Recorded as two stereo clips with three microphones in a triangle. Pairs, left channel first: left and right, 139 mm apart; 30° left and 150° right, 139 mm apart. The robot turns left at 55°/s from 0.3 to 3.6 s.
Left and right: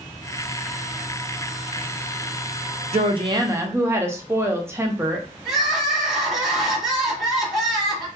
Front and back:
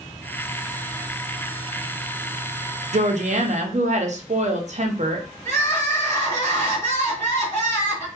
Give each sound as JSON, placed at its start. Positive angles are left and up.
{"t": 2.9, "sound": "a woman speaking", "azimuth_deg": -125, "distance_m": 0.6}
{"t": 5.5, "sound": "crying", "azimuth_deg": 0, "distance_m": 1.4}